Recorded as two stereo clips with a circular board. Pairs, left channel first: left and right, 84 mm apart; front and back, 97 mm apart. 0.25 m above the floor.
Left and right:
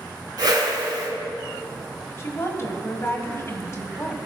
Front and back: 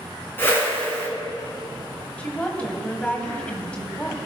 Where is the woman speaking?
70° left, 1.1 m.